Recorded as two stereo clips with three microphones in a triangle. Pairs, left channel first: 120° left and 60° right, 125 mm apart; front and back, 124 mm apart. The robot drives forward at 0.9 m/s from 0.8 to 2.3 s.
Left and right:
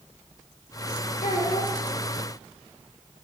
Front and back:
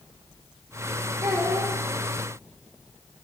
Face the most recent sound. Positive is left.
turn(degrees=120)